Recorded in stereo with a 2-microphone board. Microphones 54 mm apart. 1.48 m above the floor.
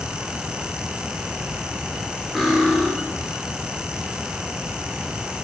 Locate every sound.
2.4 s cutlery clinking: 5° right (ahead or behind), 1.3 m